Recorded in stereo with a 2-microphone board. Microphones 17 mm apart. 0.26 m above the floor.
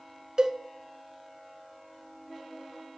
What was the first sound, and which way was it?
A cowbell, 50° right (ahead or behind).